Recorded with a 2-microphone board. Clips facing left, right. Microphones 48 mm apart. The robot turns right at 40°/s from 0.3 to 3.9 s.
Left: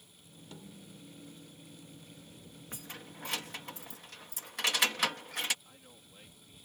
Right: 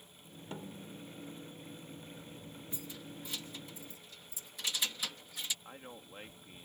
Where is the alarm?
I don't hear an alarm.